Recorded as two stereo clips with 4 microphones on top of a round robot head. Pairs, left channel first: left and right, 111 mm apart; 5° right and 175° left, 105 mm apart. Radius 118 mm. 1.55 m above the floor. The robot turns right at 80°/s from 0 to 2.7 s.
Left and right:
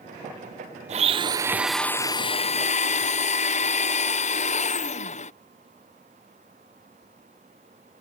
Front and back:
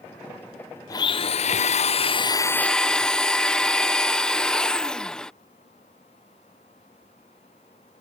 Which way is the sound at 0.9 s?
65° right.